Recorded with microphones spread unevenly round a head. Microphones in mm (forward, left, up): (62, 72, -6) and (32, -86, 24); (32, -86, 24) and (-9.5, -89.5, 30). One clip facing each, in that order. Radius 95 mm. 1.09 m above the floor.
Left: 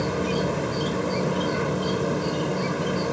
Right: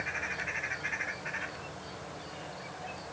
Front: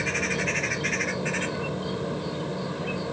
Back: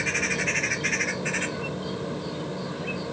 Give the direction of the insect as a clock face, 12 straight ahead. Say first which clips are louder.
Left 18 dB, back 1 dB; 9 o'clock.